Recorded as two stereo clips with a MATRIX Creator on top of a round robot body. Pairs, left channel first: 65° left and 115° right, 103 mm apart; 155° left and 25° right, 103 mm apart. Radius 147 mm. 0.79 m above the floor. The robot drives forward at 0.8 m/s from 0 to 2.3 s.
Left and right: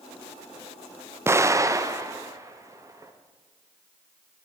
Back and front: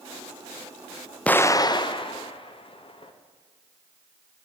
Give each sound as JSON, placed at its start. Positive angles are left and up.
{"t": 1.3, "sound": "an explosion", "azimuth_deg": -140, "distance_m": 0.6}